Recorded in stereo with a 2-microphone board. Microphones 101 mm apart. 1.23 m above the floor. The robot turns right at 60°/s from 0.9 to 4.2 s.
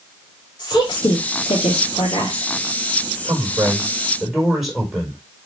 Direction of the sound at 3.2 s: 55° right.